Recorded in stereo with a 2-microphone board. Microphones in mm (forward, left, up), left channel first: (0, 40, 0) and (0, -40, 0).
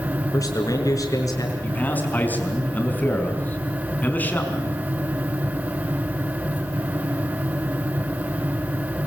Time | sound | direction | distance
0.3 | a man speaking | 45° left (ahead or behind) | 4.5 m
1.6 | a man speaking | 20° left (ahead or behind) | 4.5 m